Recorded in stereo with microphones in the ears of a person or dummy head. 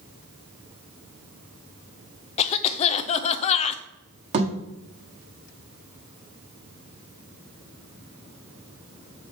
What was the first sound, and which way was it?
A cough, 35° left (ahead or behind).